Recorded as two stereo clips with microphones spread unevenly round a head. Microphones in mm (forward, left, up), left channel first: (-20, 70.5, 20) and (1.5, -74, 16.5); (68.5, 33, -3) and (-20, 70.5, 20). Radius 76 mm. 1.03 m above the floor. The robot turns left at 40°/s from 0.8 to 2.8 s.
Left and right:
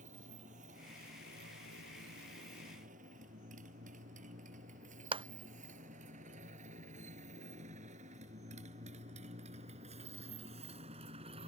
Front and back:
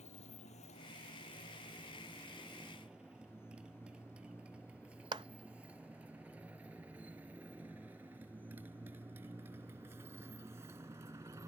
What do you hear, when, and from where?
0.0 s a motorcycle: 35° right; by 11.5 s 135° right
5.1 s a clap: 140° right